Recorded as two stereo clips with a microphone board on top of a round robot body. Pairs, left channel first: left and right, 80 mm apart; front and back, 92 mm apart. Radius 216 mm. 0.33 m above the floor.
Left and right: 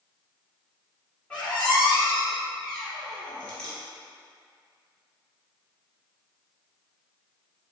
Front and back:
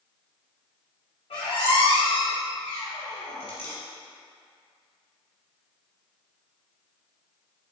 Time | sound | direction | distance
1.3 | a squeak | 10° left | 1.1 m